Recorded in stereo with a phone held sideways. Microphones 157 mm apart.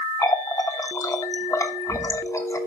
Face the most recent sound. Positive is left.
turn(degrees=20)  # may be behind; listen again after turning